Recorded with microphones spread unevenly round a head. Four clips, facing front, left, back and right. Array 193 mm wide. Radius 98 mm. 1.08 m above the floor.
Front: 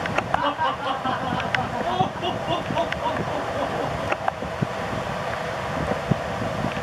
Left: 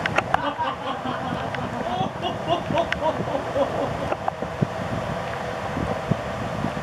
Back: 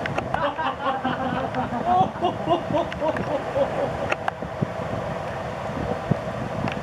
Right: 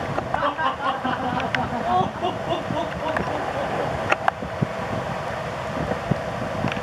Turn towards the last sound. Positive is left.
turn(degrees=115)